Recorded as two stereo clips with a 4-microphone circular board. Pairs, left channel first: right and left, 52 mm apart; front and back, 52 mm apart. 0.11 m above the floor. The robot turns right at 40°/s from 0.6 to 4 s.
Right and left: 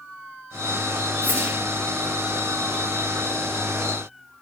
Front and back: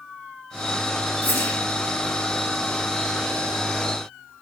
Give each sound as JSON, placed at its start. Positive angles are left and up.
{"t": 1.2, "sound": "a whoosh", "azimuth_deg": 40, "distance_m": 3.0}